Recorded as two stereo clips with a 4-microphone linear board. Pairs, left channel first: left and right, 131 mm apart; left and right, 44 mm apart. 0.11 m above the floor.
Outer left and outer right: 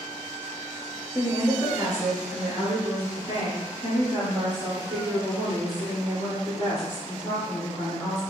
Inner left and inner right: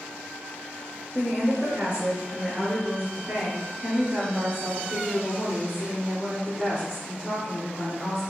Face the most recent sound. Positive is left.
turn(degrees=-35)  # may be behind; listen again after turning